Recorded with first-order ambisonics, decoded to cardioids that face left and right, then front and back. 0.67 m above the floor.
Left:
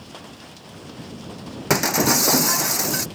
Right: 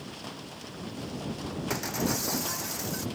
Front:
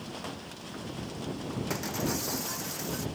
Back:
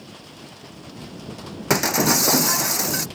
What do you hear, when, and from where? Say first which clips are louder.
1.7 s breaking glass: left 13 dB, back 15 dB; 140° left